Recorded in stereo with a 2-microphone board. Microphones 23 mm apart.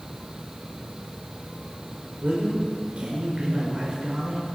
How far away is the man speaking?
About 1.9 m.